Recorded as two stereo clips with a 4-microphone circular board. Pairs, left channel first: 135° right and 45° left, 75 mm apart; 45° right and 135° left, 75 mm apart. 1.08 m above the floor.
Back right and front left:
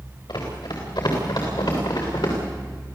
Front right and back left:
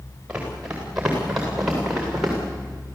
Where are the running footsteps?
145° right, 7.5 m; by 2.4 s 135° right, 8 m.